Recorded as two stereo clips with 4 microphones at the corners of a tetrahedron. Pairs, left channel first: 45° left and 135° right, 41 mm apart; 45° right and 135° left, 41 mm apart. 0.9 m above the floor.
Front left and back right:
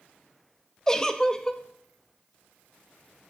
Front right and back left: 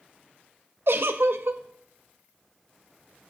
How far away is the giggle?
About 0.6 m.